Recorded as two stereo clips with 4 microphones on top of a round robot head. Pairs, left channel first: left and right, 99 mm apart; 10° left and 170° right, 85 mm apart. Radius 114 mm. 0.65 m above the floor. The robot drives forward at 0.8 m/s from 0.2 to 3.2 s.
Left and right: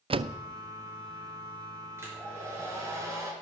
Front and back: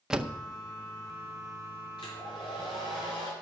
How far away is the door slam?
About 0.5 m.